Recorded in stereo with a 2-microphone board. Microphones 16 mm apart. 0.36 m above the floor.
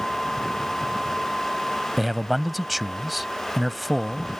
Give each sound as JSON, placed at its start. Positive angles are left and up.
{"t": 2.0, "sound": "a man speaking", "side_deg": -10}